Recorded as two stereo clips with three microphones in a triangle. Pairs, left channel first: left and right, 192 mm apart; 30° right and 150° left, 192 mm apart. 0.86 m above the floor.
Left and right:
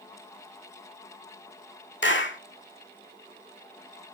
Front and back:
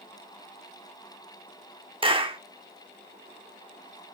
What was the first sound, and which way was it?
A clap, 90° left.